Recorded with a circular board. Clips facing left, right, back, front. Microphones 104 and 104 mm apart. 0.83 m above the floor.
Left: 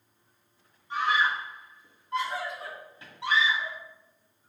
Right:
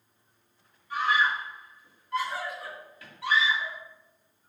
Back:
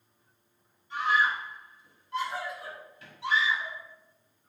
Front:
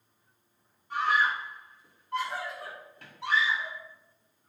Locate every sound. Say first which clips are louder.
0.9 s a scream: even, even; 30° left, 2.5 m